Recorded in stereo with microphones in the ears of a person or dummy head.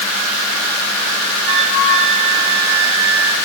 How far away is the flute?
About 4 m.